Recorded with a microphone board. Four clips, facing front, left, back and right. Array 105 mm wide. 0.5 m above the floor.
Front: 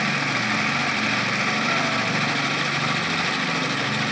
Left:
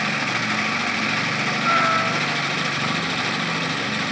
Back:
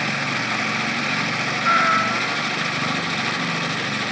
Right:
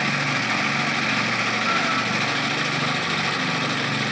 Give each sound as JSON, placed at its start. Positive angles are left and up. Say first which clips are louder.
{"t": 1.6, "sound": "a cat meowing", "louder": "left 7 dB, back 5 dB", "azimuth_deg": 165, "distance_m": 1.5}